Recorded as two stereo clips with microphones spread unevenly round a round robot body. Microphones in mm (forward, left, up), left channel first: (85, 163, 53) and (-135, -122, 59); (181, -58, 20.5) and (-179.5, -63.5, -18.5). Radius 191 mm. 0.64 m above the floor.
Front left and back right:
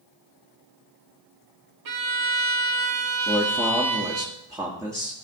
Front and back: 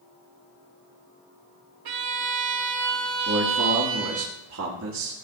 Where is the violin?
160° right, 1.8 m.